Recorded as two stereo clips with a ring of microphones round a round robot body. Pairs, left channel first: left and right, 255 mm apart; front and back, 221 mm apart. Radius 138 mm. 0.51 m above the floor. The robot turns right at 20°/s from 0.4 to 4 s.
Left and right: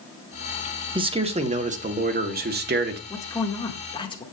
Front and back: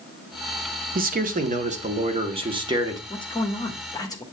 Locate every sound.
0.9 s a man speaking: 155° right, 1.0 m; by 3.0 s 110° right, 1.0 m
3.1 s a man speaking: 30° left, 1.1 m; by 4.2 s 50° left, 1.1 m